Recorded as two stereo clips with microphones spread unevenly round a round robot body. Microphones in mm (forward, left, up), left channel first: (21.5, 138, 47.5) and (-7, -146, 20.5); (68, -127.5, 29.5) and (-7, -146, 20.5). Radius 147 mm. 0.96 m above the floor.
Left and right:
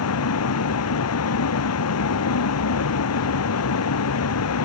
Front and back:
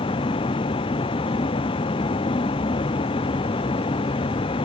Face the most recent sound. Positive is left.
turn(degrees=45)